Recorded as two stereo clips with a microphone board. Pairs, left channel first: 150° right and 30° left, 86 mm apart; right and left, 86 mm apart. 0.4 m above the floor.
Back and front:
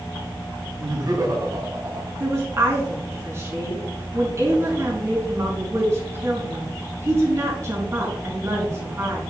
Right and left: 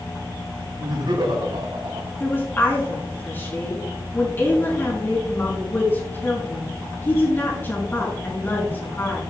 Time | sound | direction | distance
0.8 | laughter | 65° left | 4 m
2.2 | a woman speaking | 25° right | 4 m